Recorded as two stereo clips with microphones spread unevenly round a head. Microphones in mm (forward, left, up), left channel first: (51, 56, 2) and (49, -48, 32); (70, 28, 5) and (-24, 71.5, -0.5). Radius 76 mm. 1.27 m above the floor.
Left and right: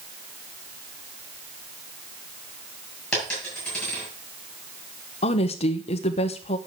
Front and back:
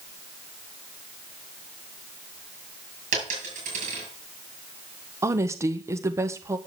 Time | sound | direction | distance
3.1 | a dropped coin | 175° left | 7 m
5.2 | a woman speaking | 95° left | 1.0 m